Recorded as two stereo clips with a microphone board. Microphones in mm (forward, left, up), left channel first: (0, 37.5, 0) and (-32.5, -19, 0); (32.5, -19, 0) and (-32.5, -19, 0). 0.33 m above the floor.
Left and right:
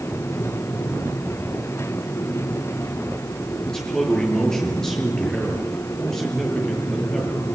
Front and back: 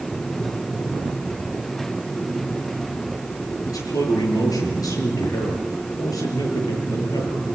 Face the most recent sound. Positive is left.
turn(degrees=-20)